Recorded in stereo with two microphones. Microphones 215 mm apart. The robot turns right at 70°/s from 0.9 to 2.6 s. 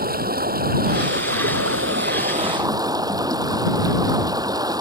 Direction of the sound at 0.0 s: 135° right.